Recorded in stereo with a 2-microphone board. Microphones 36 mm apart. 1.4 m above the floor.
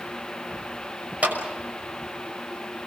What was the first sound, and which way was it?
A clap, 40° right (ahead or behind).